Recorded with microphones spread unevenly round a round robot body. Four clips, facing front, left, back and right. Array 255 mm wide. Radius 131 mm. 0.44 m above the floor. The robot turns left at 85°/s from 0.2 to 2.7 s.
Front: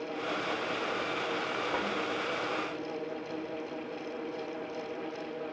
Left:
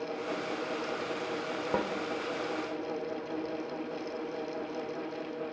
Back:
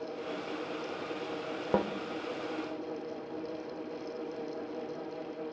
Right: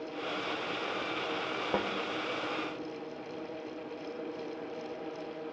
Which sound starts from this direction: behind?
A snare drum, at 1.7 s.